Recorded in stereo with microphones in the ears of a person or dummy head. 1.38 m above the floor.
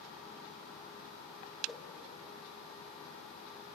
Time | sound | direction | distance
1.7 | a whoosh | 10° left (ahead or behind) | 2 m